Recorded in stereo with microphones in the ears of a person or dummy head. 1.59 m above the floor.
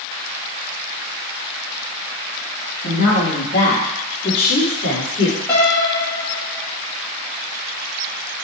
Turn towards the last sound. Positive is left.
turn(degrees=5)  # may be behind; listen again after turning